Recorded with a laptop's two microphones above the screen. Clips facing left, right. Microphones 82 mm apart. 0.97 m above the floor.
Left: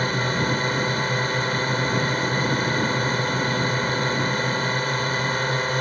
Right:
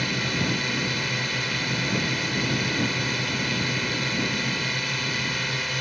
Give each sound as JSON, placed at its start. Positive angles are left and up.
{"t": 0.0, "sound": "a drone", "side_deg": 35}